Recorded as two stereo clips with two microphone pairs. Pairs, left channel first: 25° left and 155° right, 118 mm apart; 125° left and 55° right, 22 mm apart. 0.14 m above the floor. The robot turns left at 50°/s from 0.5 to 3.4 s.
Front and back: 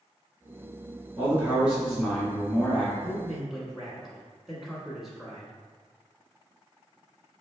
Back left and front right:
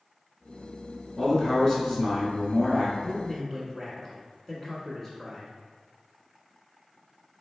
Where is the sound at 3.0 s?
140° left, 1.2 m; by 5.6 s 120° left, 1.2 m.